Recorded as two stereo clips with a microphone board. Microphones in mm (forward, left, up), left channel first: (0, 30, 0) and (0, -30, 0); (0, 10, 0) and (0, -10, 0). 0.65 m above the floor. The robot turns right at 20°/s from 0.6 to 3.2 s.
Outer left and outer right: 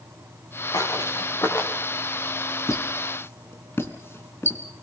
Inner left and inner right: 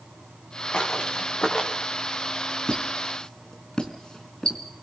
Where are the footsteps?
70° left (ahead or behind), 5 m; by 1.7 s 50° left (ahead or behind), 5 m.